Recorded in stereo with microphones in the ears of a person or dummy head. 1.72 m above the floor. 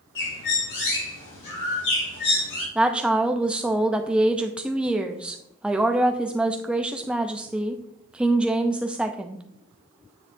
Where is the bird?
70° left (ahead or behind), 4.5 m.